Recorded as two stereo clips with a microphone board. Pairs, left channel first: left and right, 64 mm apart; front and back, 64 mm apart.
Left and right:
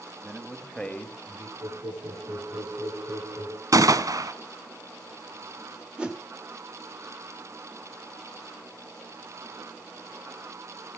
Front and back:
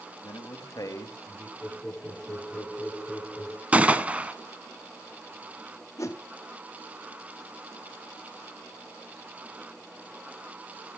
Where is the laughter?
105° right, 6.5 m.